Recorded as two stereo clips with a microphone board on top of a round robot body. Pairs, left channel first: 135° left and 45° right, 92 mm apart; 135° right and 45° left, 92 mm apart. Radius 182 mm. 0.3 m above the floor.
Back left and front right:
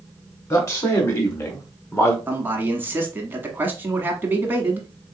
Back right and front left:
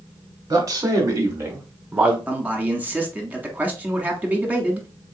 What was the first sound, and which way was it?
A man speaking, 85° left.